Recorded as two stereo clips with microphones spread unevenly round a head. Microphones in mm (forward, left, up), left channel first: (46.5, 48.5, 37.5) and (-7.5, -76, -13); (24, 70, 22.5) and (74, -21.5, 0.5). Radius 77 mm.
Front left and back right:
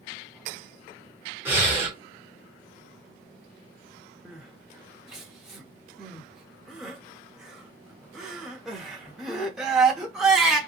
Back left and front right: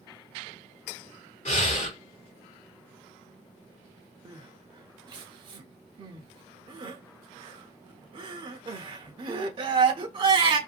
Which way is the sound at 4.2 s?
15° right.